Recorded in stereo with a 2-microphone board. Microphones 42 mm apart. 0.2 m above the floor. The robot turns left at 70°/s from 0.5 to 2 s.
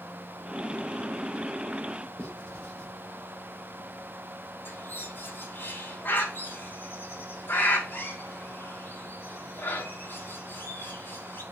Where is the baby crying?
No baby crying in this recording.